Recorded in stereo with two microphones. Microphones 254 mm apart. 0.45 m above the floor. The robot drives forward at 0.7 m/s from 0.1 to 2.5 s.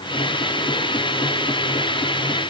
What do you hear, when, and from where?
Only background noise.